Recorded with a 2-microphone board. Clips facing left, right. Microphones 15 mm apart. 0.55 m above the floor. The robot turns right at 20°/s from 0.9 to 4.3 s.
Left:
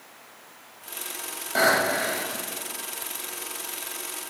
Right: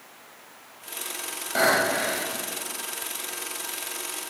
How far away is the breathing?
About 1.0 m.